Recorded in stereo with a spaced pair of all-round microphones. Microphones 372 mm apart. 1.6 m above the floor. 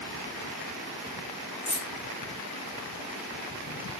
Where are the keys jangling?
50° left (ahead or behind), 1.4 m.